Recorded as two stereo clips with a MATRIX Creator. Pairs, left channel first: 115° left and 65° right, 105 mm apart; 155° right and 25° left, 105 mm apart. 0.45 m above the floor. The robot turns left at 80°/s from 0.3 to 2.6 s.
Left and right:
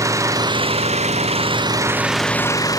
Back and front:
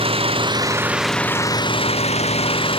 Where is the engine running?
5° right; by 2.8 s 170° left.